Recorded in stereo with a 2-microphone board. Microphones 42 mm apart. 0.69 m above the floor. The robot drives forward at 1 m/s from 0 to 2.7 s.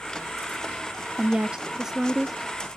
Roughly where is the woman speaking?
Right.